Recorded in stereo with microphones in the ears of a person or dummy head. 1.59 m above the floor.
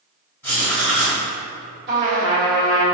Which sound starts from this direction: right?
A trumpet, at 1.9 s.